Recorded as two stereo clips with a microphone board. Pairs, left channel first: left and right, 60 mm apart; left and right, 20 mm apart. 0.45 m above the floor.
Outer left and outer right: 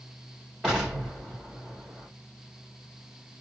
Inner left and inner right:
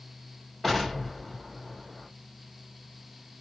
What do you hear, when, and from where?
0.6 s an explosion: 10° right (ahead or behind), 2.5 m